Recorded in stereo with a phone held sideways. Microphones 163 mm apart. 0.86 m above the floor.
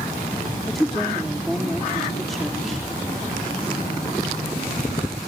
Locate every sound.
0.7 s a woman speaking: centre (ahead or behind), 1.5 m